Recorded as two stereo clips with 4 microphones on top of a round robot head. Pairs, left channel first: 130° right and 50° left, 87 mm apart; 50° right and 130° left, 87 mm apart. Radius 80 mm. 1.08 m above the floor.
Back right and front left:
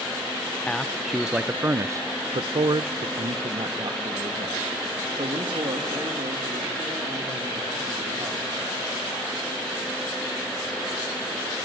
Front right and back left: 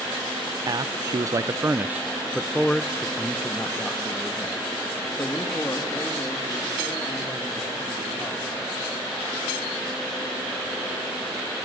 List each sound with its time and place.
0.7 s a man speaking: 155° left, 0.7 m; by 8.7 s 10° left, 3.5 m